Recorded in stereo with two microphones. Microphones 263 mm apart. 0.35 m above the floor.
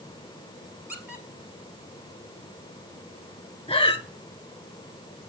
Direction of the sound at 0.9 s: 5° right (ahead or behind).